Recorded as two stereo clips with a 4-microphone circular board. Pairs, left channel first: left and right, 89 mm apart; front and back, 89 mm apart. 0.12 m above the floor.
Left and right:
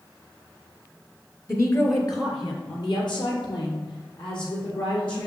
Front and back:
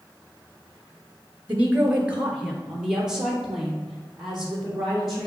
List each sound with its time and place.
1.5 s a woman speaking: 125° left, 1.3 m; by 5.3 s 90° left, 4.5 m